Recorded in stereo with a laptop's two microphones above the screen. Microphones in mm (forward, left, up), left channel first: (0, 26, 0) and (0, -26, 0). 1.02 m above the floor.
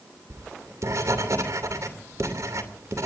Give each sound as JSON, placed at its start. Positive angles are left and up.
{"t": 0.3, "sound": "writing", "side_deg": -90, "distance_m": 2.5}